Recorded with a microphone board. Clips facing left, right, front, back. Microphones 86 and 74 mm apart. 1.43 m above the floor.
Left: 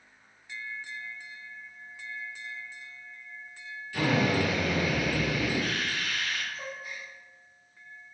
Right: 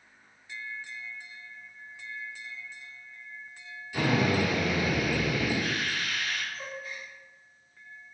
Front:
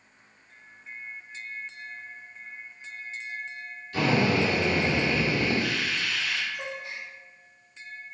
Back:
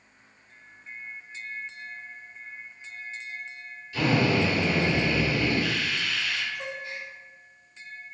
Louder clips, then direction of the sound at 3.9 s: Even, even; 20° right.